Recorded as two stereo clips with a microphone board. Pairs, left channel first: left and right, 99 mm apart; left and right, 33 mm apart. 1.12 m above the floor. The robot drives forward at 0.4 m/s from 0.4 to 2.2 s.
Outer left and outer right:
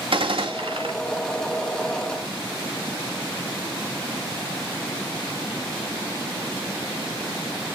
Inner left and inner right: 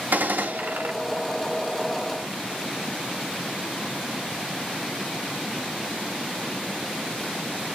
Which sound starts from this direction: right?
A gunshot, at 0.1 s.